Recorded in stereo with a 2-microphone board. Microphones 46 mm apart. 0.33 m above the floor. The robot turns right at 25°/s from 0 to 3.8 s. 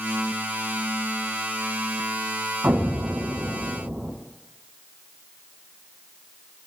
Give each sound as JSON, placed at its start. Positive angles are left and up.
{"t": 2.6, "sound": "an explosion", "side_deg": -60, "distance_m": 2.5}